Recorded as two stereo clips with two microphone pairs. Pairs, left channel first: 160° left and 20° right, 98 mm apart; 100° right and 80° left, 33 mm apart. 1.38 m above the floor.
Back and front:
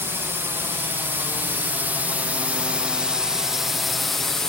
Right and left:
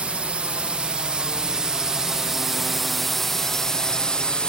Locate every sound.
0.0 s a drone: 40° left; by 4.5 s 120° right